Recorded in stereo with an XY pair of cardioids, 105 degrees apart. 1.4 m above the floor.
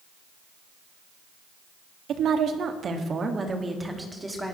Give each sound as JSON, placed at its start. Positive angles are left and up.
{"t": 2.1, "sound": "a woman speaking", "azimuth_deg": -70, "distance_m": 2.5}